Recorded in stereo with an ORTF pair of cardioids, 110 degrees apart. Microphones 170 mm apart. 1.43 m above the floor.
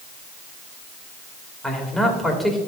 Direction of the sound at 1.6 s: Straight ahead.